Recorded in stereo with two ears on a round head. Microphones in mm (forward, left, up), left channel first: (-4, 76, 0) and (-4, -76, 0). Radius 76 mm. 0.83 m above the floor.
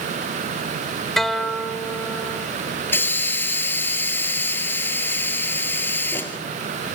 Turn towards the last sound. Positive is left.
turn(degrees=15)  # may be behind; listen again after turning